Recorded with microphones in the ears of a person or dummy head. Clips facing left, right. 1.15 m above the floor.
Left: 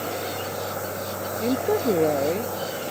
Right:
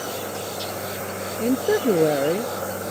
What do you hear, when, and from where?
1.4 s a woman speaking: 10° right (ahead or behind)